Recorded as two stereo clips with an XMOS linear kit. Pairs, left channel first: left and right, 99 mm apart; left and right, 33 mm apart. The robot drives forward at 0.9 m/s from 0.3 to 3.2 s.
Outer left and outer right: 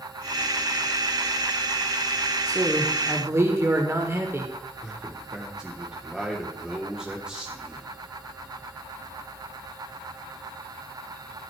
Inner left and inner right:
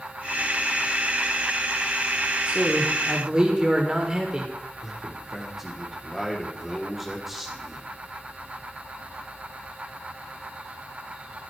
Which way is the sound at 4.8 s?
10° right (ahead or behind).